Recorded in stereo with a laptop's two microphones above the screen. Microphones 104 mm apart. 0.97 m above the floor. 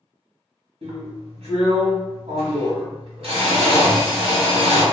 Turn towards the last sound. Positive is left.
turn(degrees=-60)  # may be behind; listen again after turning